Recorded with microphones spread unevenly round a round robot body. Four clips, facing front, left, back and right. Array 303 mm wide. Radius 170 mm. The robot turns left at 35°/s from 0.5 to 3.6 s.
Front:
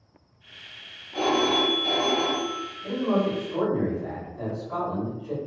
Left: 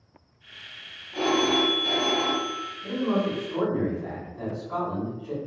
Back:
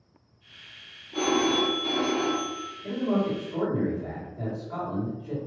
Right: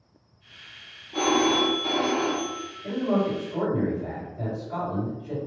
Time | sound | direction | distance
1.1 | a phone ringing | 120° right | 0.9 m
2.8 | a man speaking | 145° left | 1.9 m